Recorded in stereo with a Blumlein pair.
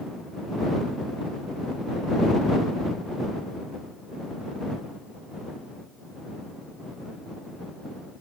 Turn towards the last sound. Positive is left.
No sound to turn to.